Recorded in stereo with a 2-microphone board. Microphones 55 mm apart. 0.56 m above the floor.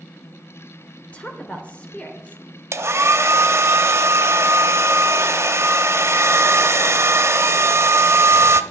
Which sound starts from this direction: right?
A hair dryer, at 2.7 s.